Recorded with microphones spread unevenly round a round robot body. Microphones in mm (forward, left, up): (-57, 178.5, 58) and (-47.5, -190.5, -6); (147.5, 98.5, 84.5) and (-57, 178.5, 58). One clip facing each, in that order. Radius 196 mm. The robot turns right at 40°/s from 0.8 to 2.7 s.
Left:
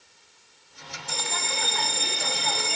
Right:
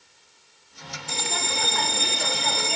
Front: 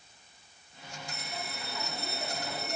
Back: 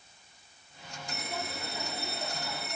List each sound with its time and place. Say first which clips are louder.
1.1 s a bell: right 3 dB, back 5 dB; 150° right, 0.6 m; by 2.8 s 85° right, 0.6 m